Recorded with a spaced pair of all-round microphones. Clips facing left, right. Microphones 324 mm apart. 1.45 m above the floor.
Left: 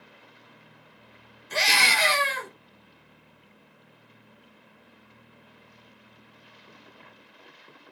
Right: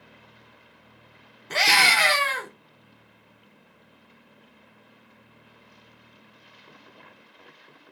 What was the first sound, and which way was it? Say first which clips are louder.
A scream: right 3 dB; 80° right.